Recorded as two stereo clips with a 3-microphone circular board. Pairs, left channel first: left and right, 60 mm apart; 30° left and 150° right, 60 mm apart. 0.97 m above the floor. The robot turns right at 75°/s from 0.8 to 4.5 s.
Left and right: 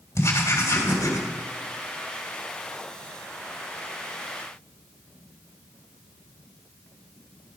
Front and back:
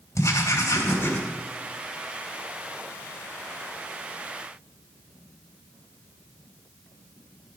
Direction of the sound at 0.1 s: 65° left.